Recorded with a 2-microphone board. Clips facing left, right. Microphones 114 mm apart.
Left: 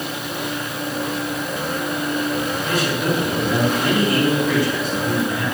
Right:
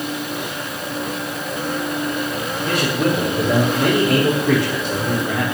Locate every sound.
2.6 s a man speaking: 65° right (ahead or behind), 5.5 m